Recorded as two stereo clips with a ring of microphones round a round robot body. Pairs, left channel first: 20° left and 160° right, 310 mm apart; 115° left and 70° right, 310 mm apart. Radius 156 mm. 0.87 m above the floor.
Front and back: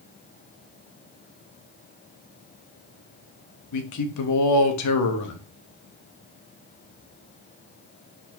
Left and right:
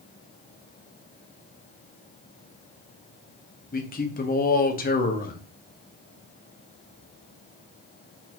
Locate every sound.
3.7 s a man speaking: 50° left, 1.0 m